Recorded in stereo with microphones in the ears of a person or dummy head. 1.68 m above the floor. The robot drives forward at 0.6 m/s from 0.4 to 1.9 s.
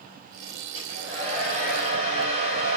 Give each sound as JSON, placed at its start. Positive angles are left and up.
{"t": 0.8, "sound": "a hair dryer", "side_deg": -30, "distance_m": 5.0}